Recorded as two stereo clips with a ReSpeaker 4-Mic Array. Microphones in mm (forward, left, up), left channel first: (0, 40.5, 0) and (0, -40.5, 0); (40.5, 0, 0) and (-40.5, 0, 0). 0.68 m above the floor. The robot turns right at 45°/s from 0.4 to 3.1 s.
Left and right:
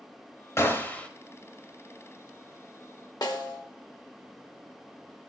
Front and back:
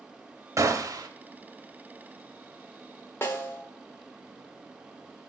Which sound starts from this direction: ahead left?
A snare drum, at 3.2 s.